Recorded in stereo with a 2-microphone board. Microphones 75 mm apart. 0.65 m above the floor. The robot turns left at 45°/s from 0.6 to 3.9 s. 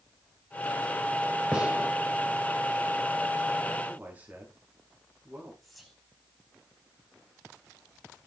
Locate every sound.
1.5 s a gunshot: 10° right (ahead or behind), 4 m; by 1.9 s 25° right (ahead or behind), 4 m
3.9 s a man speaking: 20° right (ahead or behind), 6.5 m
5.6 s whispering: centre (ahead or behind), 4.5 m